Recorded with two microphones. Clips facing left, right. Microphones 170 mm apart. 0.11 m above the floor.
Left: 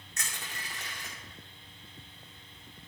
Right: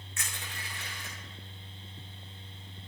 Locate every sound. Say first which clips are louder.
0.2 s crushing: left 1 dB; 40° left (ahead or behind), 2 m